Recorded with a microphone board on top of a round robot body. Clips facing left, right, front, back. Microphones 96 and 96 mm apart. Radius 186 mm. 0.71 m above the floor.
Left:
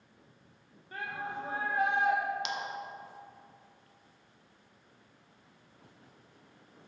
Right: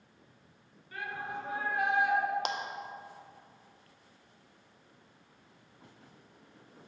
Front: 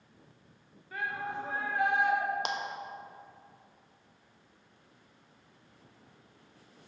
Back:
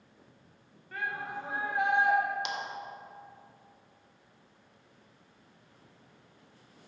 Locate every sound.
0.9 s a shout: 85° left, 1.2 m; by 2.2 s 135° left, 1.4 m
2.5 s a clap: 45° right, 0.8 m